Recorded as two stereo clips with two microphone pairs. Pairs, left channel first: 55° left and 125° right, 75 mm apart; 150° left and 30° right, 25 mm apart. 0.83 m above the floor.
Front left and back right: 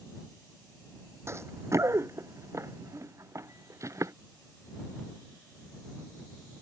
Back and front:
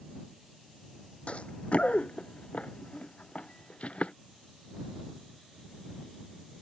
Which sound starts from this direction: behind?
Running footsteps, at 1.3 s.